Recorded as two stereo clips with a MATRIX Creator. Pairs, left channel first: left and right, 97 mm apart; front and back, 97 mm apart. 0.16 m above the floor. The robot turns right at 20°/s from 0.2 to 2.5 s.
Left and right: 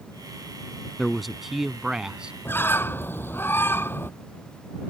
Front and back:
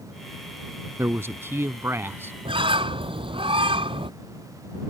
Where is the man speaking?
175° left; by 2.3 s 160° right.